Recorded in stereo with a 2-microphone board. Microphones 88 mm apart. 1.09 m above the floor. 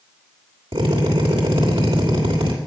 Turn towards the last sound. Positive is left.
turn(degrees=-85)